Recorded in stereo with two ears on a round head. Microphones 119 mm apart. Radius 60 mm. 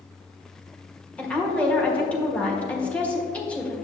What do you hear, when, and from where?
1.2 s a woman speaking: 10° left (ahead or behind), 1.5 m